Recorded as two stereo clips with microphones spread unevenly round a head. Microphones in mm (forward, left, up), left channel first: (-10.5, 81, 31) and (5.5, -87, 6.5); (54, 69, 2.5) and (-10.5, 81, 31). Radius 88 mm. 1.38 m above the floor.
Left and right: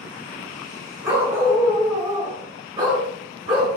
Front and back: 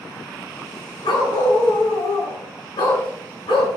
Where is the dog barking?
Straight ahead, 5 m; by 3.7 s 20° right, 7 m.